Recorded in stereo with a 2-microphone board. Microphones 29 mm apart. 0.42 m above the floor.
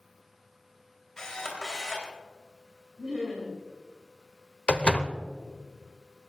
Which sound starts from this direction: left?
A door slam, at 4.7 s.